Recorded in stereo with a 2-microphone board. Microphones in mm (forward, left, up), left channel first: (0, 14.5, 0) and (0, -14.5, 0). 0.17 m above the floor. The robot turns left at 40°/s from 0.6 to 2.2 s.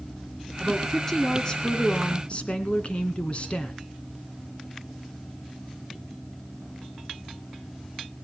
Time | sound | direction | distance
0.6 | a woman speaking | 175° left | 1.8 m